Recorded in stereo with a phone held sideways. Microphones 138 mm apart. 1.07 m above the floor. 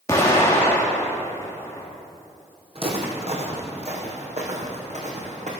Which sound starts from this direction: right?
Footsteps, at 2.8 s.